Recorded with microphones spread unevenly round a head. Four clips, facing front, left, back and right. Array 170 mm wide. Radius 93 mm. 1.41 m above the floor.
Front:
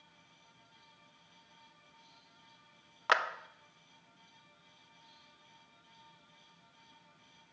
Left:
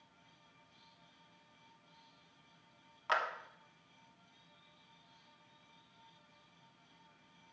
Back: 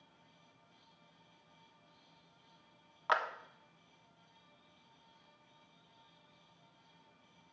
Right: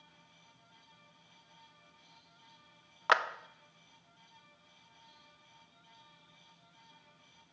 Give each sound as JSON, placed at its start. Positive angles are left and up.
{"t": 3.1, "sound": "a clap", "azimuth_deg": -55, "distance_m": 0.6}